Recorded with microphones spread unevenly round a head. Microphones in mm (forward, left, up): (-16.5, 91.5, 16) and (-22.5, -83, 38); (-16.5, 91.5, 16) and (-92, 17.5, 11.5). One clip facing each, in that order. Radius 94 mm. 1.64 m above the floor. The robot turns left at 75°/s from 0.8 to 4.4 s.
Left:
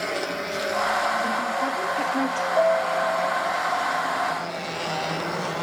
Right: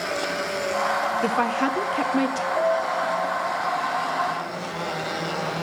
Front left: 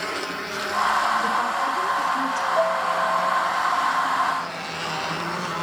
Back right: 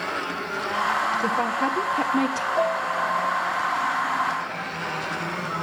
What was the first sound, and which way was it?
A woman speaking, 70° right.